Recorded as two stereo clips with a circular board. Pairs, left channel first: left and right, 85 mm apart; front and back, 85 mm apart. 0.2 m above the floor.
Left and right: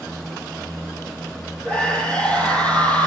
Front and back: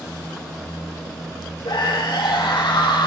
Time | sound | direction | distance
1.6 | a scream | 15° left | 8 m